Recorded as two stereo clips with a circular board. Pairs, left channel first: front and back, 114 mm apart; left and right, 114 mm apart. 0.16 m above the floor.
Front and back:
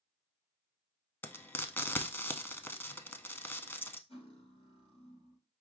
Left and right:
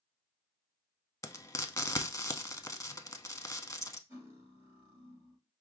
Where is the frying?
55° left, 0.5 m.